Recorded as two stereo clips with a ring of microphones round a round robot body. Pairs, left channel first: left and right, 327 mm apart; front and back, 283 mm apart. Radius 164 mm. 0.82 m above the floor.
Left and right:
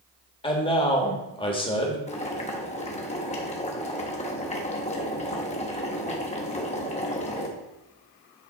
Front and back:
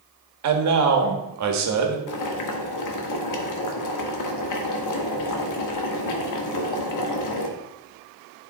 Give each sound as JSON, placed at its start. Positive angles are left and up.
{"t": 0.4, "sound": "a man speaking", "azimuth_deg": 165, "distance_m": 1.4}
{"t": 2.1, "sound": "boiling", "azimuth_deg": 20, "distance_m": 1.1}